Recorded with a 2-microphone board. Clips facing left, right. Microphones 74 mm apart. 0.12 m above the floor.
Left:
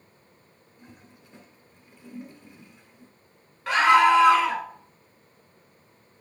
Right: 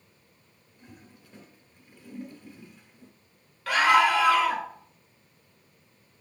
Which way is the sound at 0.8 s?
20° left (ahead or behind).